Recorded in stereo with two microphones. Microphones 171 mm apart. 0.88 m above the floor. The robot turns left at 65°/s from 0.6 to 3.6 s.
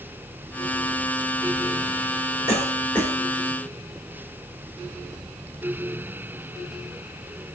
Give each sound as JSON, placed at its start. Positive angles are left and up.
{"t": 2.5, "sound": "a cough", "side_deg": 40, "distance_m": 3.5}